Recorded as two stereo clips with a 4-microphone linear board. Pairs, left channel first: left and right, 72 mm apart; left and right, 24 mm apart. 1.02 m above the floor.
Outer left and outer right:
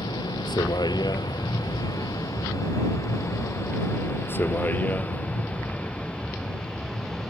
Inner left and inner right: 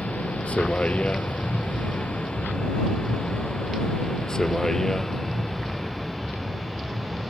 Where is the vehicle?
80° left; by 7.3 s 5° left (ahead or behind).